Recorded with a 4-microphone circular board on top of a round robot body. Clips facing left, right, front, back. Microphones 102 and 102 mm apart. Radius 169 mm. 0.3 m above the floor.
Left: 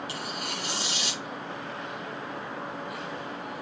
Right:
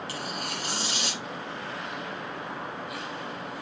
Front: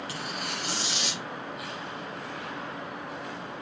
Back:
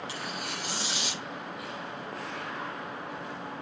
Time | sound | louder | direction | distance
0.1 | tearing paper | right 1 dB, front 1 dB | 45° right | 7.5 m